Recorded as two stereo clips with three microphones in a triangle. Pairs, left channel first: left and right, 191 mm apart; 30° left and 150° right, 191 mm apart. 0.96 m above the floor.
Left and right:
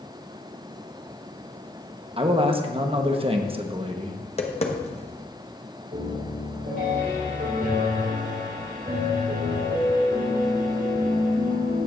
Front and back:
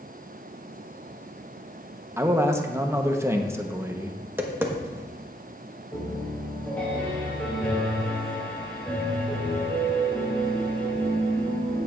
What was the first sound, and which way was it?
A man speaking, 85° right.